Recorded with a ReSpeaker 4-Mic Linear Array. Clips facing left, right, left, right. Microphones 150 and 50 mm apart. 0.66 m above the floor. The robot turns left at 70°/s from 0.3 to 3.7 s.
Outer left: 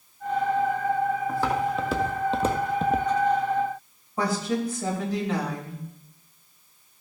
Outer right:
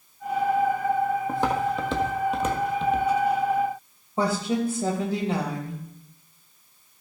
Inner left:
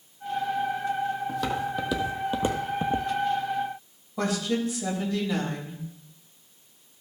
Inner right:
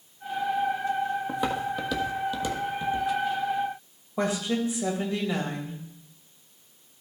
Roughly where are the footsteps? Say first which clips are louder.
Outer right 1 dB, even; right.